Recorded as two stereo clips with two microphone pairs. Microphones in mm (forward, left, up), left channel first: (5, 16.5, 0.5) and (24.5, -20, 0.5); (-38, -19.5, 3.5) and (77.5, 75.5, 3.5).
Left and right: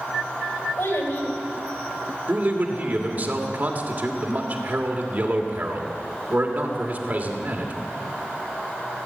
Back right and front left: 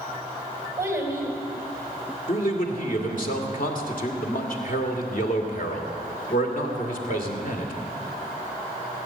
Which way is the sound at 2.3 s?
110° right.